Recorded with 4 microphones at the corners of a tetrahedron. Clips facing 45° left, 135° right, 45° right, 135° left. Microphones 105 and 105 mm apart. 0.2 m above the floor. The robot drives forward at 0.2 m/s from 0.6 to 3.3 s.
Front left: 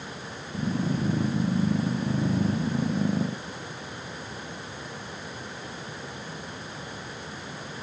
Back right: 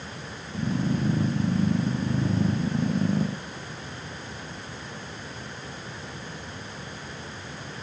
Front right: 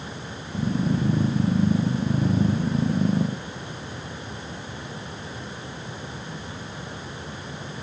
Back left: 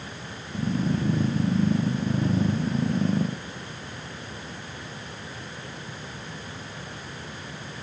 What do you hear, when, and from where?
Only background noise.